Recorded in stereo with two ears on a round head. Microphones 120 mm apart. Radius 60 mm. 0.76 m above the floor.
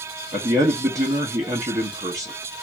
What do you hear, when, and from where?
0.3 s a man speaking: 25° right (ahead or behind), 0.9 m